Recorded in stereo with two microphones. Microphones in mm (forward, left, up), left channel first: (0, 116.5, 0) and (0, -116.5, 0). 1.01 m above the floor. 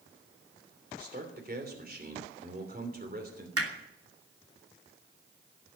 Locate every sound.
1.0 s a man speaking: 40° right (ahead or behind), 3 m
3.6 s hammering: 80° right, 3 m